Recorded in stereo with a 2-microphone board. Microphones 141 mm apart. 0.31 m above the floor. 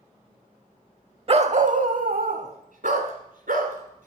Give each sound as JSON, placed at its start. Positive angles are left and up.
{"t": 1.3, "sound": "a dog barking", "side_deg": -45, "distance_m": 0.5}